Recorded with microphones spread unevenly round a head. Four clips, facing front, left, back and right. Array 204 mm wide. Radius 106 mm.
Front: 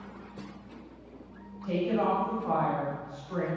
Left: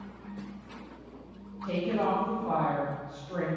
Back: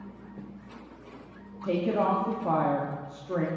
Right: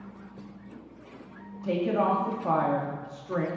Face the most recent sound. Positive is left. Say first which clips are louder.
# right 3 dB, back 2 dB
turn(degrees=-155)